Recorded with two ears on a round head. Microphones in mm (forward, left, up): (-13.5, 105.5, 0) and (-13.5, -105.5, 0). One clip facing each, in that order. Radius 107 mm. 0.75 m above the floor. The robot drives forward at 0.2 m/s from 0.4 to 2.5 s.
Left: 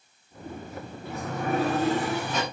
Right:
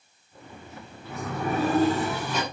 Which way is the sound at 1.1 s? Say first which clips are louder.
Even; 80° right.